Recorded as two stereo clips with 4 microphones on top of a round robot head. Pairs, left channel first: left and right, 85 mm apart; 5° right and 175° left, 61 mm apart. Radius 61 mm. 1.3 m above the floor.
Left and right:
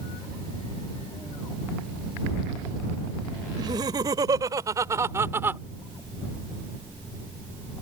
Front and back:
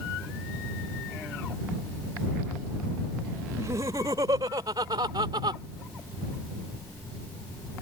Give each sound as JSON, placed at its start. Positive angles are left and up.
{"t": 3.6, "sound": "laughter", "azimuth_deg": -130}